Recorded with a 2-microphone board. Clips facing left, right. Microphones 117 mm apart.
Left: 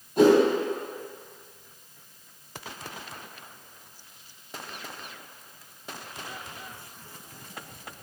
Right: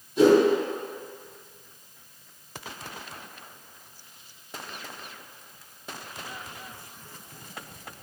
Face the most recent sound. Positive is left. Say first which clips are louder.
# even
turn(degrees=55)  # may be behind; listen again after turning